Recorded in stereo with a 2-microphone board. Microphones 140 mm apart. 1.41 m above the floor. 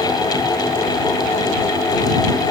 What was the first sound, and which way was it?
Only background noise.